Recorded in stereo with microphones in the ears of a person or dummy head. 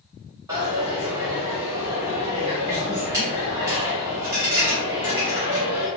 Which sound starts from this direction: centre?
A dropped coin, at 0.5 s.